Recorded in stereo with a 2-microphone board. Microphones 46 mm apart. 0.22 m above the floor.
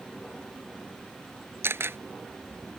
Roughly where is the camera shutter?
Right.